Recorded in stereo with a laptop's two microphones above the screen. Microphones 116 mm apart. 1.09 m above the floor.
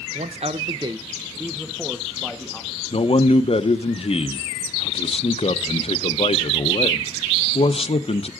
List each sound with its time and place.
0.1 s a man speaking: 80° right, 0.5 m; by 2.8 s 5° left (ahead or behind), 1.5 m
2.9 s a man speaking: 55° left (ahead or behind), 0.7 m